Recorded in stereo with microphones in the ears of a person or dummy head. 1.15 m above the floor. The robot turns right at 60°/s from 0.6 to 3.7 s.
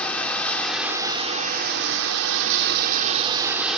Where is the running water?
170° left, 1.3 m; by 3.8 s 5° right, 1.3 m.